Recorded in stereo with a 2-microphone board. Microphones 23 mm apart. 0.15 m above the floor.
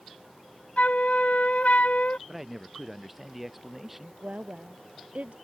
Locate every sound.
0.8 s a flute: 75° left (ahead or behind)
2.3 s a man speaking: 10° right (ahead or behind)
4.2 s a woman speaking: 70° right (ahead or behind)